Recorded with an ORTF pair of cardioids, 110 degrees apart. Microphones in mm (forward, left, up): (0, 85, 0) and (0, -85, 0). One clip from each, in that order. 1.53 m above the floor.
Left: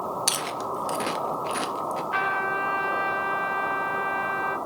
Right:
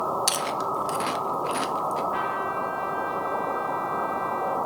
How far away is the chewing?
About 0.8 m.